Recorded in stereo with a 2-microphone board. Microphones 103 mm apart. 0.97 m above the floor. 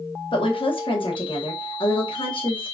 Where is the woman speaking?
55° left (ahead or behind), 1.5 m.